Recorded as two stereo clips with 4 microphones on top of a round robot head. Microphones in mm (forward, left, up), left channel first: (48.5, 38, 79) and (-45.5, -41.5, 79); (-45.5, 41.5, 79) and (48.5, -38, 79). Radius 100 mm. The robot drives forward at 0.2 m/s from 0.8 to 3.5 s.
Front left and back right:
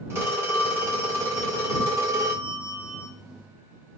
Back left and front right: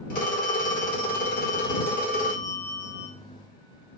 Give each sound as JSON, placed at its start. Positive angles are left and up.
{"t": 0.1, "sound": "a phone ringing", "azimuth_deg": 150, "distance_m": 1.5}